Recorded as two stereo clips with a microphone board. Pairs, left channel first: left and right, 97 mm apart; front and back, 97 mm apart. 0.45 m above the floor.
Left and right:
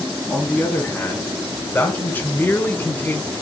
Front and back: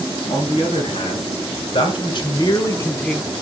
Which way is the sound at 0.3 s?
15° left.